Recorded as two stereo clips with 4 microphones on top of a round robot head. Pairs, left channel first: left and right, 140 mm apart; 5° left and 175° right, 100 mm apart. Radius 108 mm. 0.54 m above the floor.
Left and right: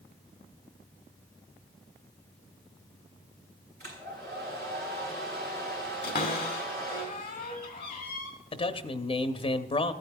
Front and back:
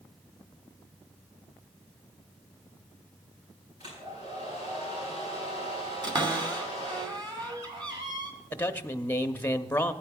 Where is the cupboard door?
145° left, 2.5 m.